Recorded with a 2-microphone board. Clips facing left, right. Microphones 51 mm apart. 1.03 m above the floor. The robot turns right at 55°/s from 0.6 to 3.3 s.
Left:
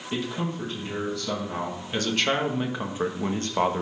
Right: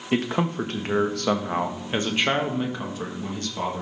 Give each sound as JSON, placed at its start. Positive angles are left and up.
{"t": 0.1, "sound": "a man speaking", "azimuth_deg": -105, "distance_m": 1.4}